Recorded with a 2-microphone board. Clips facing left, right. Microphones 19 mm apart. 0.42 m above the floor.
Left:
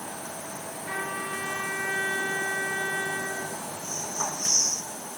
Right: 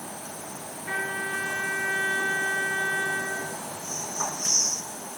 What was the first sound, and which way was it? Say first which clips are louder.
A trumpet: right 3 dB; 20° right (ahead or behind).